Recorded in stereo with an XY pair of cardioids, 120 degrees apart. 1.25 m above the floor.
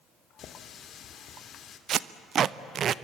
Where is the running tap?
55° left, 2 m.